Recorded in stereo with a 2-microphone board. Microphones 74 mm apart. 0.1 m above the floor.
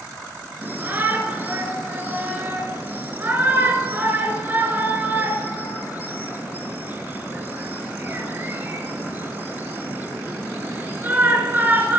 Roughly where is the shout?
Right.